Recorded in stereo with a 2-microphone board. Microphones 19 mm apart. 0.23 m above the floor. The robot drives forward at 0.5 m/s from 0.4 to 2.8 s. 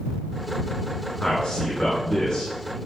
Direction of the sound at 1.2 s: 60° left (ahead or behind).